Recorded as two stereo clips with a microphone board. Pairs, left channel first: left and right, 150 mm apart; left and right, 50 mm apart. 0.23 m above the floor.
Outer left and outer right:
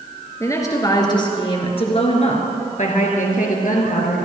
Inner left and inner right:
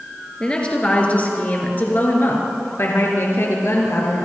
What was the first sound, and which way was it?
A woman speaking, 20° left (ahead or behind).